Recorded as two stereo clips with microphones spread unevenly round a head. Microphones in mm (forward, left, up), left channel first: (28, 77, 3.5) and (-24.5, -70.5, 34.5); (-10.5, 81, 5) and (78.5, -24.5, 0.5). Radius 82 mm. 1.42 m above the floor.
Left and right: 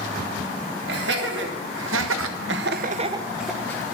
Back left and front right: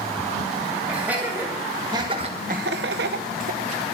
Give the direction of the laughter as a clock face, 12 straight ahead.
4 o'clock.